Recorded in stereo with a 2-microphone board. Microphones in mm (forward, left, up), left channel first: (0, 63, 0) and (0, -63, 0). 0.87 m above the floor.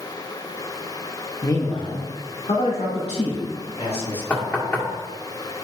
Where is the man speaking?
25° left (ahead or behind), 0.8 m; by 4.2 s 60° left (ahead or behind), 4.5 m.